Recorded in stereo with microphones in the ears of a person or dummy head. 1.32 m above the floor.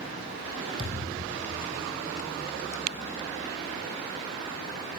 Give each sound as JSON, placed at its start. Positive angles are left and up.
{"t": 0.8, "sound": "a thud", "side_deg": -30, "distance_m": 3.0}